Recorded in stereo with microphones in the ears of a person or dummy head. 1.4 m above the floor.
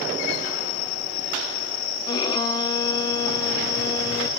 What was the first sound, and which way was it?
A violin, 30° left (ahead or behind).